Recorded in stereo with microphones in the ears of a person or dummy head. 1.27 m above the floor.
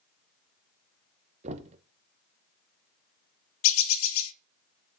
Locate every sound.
1.4 s knocking: 35° right (ahead or behind), 0.9 m
3.6 s a bird: 75° left (ahead or behind), 0.6 m